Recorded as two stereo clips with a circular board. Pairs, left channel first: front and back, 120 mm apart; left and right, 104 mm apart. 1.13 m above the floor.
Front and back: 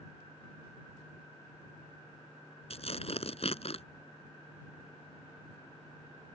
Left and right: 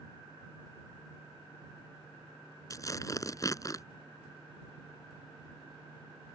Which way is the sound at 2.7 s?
30° left.